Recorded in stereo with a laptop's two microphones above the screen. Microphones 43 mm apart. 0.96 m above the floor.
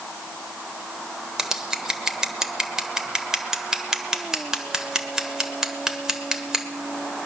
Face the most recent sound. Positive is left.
turn(degrees=-15)  # may be behind; listen again after turning